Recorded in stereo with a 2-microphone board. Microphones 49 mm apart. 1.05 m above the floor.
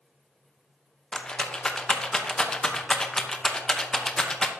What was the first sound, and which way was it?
A rattle, 15° left (ahead or behind).